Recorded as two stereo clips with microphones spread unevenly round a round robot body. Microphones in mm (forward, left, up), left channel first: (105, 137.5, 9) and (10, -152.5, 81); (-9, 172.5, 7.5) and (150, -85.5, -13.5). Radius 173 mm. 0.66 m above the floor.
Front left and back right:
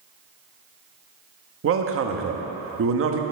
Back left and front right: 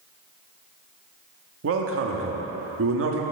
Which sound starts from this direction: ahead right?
A man speaking, at 1.6 s.